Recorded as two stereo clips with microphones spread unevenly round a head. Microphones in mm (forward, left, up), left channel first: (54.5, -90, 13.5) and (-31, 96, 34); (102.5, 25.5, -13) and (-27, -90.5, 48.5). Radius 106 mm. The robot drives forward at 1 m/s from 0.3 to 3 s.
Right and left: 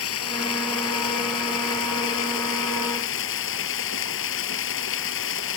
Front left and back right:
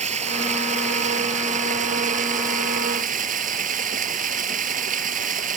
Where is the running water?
90° right; by 5.6 s 95° right.